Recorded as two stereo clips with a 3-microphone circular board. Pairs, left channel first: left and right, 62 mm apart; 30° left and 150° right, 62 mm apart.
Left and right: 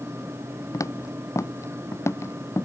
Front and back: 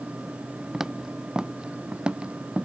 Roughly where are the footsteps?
Behind left.